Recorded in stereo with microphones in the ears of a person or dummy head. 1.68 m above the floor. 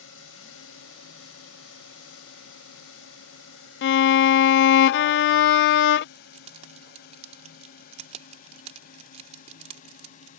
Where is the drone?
80° left; by 10.4 s 45° left (ahead or behind).